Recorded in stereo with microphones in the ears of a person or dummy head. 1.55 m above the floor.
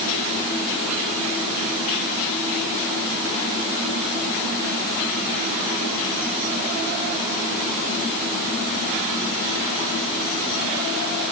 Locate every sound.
Only background noise.